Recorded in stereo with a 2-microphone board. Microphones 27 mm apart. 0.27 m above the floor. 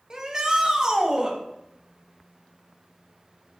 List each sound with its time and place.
0.1 s a shout: 30° right (ahead or behind), 1.3 m